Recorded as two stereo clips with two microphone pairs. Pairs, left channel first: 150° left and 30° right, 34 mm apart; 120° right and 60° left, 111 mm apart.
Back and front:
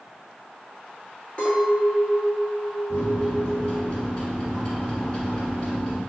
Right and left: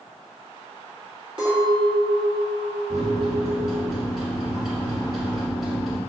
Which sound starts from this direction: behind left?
A microwave, at 2.9 s.